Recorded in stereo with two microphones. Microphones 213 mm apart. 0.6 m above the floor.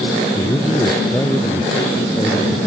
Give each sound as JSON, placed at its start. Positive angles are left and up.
{"t": 0.3, "sound": "a man speaking", "side_deg": 10}